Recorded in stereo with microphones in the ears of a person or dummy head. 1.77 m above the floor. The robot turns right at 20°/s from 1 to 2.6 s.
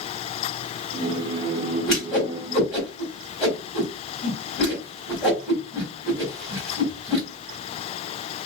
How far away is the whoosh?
About 2 m.